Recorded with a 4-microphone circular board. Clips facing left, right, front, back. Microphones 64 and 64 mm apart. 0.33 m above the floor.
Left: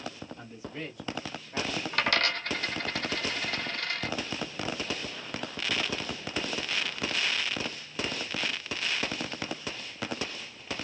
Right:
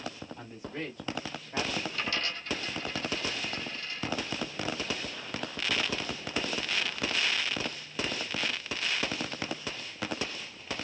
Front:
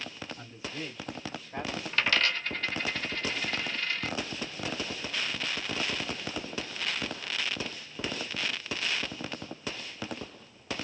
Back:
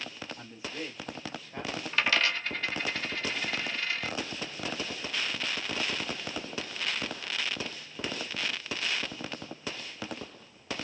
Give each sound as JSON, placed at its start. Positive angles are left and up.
{"t": 0.4, "sound": "a man speaking", "azimuth_deg": -120, "distance_m": 2.0}
{"t": 1.9, "sound": "a dropped coin", "azimuth_deg": 95, "distance_m": 0.6}